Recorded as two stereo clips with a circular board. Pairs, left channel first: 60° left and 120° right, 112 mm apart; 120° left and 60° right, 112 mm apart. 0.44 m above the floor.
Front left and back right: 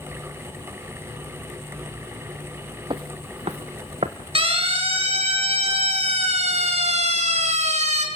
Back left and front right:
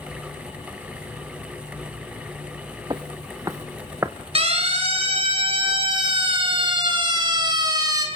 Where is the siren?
85° right, 5.5 m; by 8.1 s 115° right, 4.5 m.